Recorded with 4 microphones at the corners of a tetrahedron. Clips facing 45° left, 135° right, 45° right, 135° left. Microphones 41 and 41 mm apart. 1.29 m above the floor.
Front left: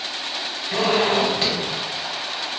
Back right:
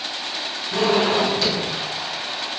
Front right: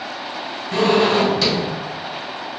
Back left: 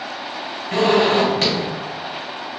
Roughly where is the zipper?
Left.